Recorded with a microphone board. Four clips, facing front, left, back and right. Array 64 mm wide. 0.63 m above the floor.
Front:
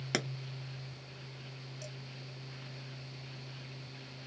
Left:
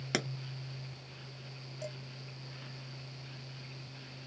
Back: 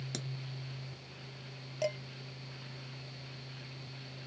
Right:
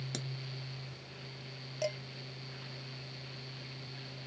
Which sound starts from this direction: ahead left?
A pop, at 0.1 s.